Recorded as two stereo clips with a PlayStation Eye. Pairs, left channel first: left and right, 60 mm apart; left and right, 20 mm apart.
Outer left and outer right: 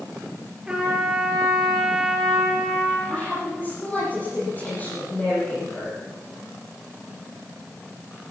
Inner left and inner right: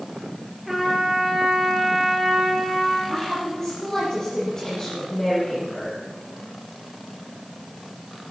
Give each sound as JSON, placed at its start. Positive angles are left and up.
{"t": 0.7, "sound": "a trumpet", "side_deg": -15, "distance_m": 4.5}
{"t": 3.1, "sound": "a woman speaking", "side_deg": 25, "distance_m": 8.0}